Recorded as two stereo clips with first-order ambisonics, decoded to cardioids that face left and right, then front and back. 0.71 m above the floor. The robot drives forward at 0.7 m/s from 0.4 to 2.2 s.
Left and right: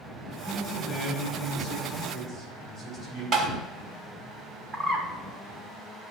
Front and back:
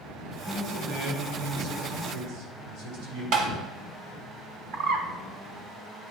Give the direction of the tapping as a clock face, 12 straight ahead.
5 o'clock.